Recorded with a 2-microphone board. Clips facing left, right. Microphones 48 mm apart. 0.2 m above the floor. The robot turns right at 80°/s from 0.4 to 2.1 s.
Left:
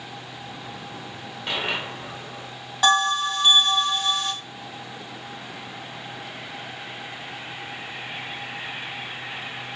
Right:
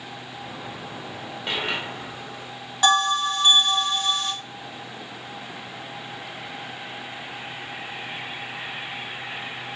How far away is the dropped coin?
About 1.3 m.